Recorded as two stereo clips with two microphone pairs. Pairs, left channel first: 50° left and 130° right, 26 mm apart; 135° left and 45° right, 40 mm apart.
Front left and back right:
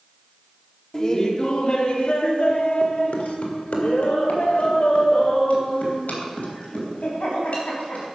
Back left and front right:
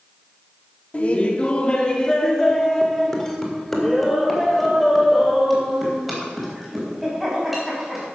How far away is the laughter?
About 1.2 m.